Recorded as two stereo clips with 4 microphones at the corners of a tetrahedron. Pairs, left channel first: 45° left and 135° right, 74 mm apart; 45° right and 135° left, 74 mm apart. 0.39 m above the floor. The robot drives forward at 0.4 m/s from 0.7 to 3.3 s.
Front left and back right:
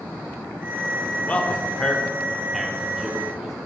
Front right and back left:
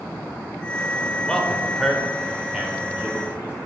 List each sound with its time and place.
1.3 s a man speaking: 20° left, 0.9 m; by 3.5 s 165° left, 0.9 m